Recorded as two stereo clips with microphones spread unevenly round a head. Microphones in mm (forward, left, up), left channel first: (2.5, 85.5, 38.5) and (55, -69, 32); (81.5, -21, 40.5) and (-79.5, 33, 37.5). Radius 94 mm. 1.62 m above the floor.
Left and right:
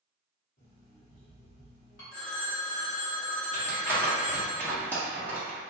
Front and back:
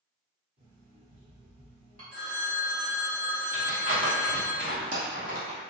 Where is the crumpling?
175° right, 1.0 m.